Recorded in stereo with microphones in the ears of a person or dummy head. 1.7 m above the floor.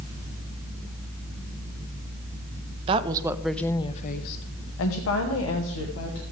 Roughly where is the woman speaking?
Right.